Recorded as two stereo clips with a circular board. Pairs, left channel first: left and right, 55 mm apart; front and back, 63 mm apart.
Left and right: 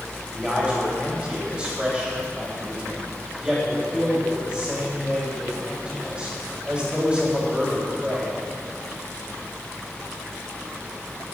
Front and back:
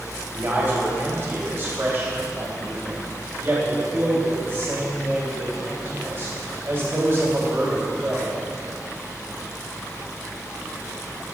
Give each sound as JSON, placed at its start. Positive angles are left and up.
{"t": 0.3, "sound": "a man speaking", "azimuth_deg": -150, "distance_m": 2.0}